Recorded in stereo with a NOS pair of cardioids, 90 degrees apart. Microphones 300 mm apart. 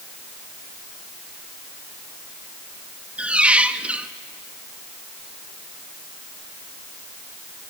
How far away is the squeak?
About 0.9 m.